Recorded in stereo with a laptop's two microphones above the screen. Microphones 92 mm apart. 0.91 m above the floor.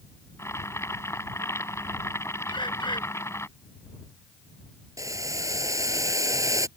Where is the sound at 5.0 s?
40° right (ahead or behind).